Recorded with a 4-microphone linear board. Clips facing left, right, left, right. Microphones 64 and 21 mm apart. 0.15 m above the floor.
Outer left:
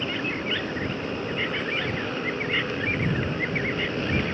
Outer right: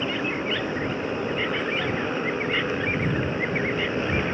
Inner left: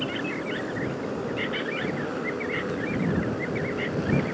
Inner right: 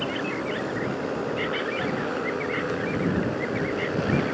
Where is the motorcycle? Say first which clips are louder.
Outer right 2 dB, inner right 1 dB; 20° right (ahead or behind).